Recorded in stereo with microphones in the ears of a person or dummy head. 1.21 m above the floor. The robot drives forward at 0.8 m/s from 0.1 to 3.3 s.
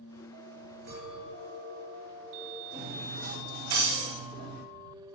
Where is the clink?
80° right, 3.5 m; by 2.6 s 60° right (ahead or behind), 4 m.